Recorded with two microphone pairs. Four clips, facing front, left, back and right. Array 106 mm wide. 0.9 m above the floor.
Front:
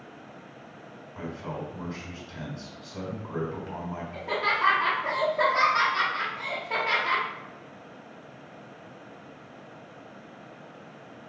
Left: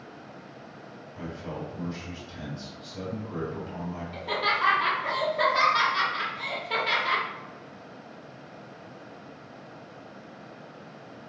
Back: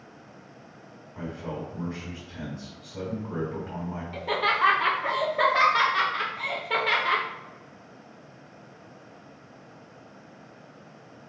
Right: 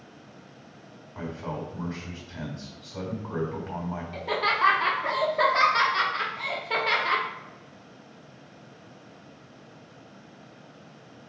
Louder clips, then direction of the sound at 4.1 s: Right 1 dB, back 2 dB; 140° right.